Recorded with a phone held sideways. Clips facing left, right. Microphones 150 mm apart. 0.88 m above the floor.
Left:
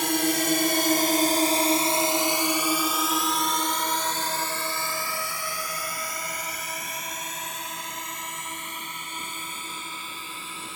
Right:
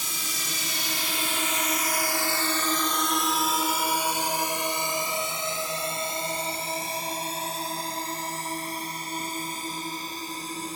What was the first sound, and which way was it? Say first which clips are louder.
A drone: left 15 dB; 65° left (ahead or behind).